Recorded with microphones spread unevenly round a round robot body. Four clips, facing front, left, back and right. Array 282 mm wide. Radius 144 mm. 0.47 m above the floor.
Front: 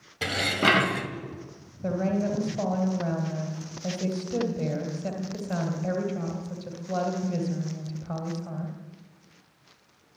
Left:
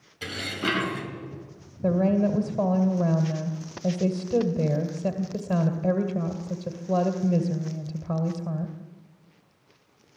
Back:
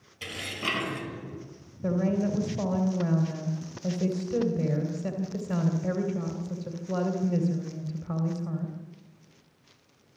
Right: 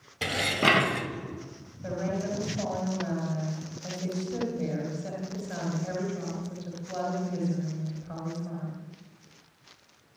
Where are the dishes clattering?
35° right, 2 m.